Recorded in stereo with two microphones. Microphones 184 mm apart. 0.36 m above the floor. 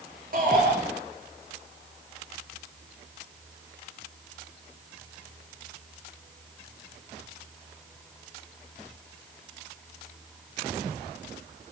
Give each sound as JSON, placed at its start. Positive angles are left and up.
{"t": 0.3, "sound": "a shout", "side_deg": -50, "distance_m": 7.5}